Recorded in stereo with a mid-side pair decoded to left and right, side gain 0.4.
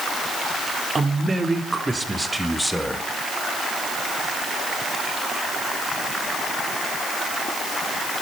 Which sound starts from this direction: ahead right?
A man speaking, at 0.9 s.